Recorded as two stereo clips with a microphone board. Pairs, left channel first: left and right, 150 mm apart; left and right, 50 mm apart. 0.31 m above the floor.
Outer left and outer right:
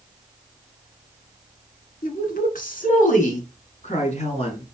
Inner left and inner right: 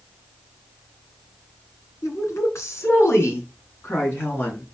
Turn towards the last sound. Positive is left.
turn(degrees=45)  # may be behind; listen again after turning